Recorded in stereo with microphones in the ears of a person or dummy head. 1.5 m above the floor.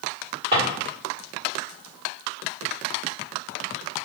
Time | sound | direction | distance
0.5 | a drawer | 30° right (ahead or behind) | 1.8 m